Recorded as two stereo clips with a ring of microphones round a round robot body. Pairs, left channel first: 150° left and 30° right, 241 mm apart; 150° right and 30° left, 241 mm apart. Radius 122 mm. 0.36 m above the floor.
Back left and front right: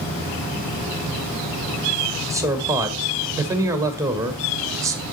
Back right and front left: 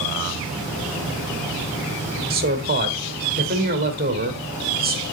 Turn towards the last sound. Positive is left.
turn(degrees=40)